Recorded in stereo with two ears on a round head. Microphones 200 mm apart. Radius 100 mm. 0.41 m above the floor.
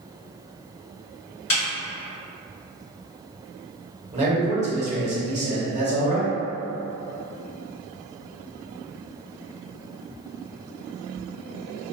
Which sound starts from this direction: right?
A man speaking, at 4.1 s.